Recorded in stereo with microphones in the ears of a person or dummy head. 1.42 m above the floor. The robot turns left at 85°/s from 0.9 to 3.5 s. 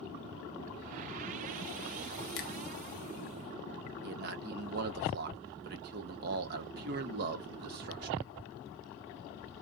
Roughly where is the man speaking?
Right.